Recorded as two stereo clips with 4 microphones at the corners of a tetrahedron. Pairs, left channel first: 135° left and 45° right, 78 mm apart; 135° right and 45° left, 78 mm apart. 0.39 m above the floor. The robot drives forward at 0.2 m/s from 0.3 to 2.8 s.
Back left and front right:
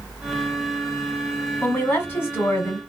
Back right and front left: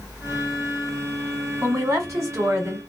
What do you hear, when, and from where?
1.6 s a woman speaking: 80° left, 2 m; by 2.8 s 90° left, 2 m